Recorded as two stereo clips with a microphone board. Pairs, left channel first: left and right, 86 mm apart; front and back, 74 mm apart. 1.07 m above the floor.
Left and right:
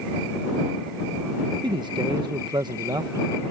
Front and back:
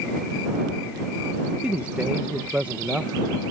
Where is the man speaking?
110° right.